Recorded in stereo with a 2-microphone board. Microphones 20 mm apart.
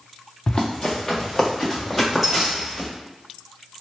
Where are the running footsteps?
30° left (ahead or behind), 0.8 m; by 2.9 s centre (ahead or behind), 1.9 m.